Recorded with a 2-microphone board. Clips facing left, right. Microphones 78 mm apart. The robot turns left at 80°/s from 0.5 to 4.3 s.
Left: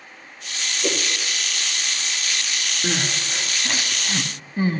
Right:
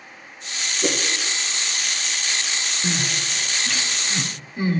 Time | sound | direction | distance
0.8 | a whoosh | 50° right (ahead or behind) | 2.5 m
2.8 | crying | 15° left (ahead or behind) | 1.2 m